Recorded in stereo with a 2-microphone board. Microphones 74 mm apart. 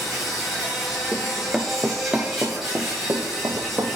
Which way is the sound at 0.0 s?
5° right (ahead or behind).